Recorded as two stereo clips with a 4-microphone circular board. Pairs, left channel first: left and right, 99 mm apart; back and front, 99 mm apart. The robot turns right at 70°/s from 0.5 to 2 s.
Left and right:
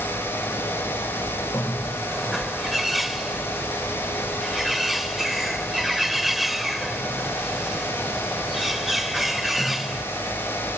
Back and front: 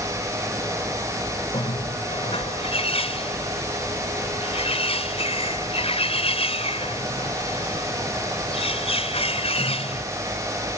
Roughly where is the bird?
Behind left.